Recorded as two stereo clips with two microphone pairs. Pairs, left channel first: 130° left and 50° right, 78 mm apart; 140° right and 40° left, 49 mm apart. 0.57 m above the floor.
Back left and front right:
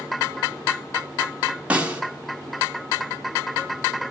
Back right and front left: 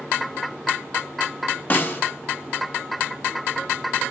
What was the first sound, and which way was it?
A snare drum, 115° right.